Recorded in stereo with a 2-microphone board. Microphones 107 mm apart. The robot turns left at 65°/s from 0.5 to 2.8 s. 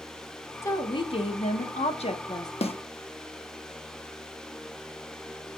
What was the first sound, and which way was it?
A woman speaking, 155° left.